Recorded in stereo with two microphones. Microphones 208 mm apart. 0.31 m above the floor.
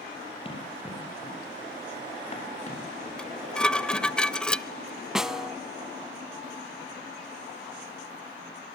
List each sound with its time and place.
0.5 s running footsteps: 25° left (ahead or behind), 8.5 m; by 4.0 s 40° left (ahead or behind), 9.5 m
3.2 s dishes clattering: 5° left (ahead or behind), 0.6 m
5.2 s a snare drum: centre (ahead or behind), 0.6 m